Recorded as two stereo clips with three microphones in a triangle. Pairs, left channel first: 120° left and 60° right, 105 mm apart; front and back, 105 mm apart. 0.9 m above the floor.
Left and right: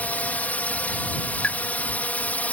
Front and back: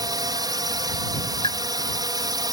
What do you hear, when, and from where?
0.0 s a drone: 175° right
1.4 s a pop: 40° left